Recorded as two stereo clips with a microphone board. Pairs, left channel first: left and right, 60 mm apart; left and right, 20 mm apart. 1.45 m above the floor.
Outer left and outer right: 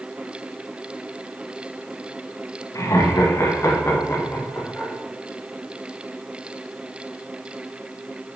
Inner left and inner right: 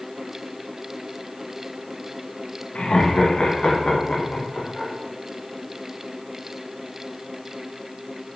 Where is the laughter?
60° left (ahead or behind), 1.5 m; by 4.9 s 35° left (ahead or behind), 3 m.